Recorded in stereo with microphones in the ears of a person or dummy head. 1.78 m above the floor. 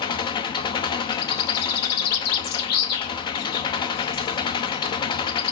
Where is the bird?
60° left (ahead or behind), 2.5 m.